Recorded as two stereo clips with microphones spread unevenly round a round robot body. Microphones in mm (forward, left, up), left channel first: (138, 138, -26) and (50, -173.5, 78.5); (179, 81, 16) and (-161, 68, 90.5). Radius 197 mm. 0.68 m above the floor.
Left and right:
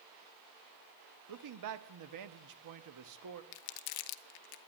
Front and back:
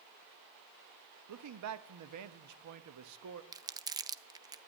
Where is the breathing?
I don't hear breathing.